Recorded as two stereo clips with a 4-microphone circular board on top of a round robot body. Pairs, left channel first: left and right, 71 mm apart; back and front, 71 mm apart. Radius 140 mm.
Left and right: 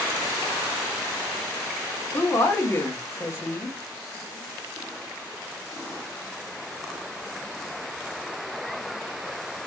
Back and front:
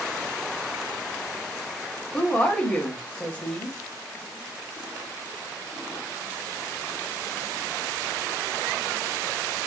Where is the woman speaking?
125° left, 1.0 m.